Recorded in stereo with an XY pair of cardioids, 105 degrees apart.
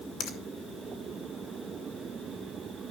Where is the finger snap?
65° left, 2.0 m.